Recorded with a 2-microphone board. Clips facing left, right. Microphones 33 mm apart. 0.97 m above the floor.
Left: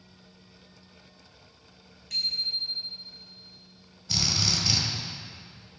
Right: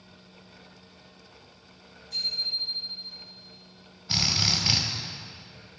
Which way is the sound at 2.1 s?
90° left.